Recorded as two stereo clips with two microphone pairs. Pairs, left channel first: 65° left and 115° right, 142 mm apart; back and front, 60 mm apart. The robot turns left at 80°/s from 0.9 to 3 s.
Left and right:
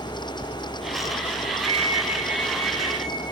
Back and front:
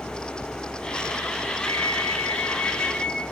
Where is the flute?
155° right, 3.5 m; by 3.2 s 95° left, 3.5 m.